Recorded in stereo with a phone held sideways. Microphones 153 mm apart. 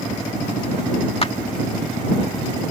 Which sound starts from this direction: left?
A clap, at 1.2 s.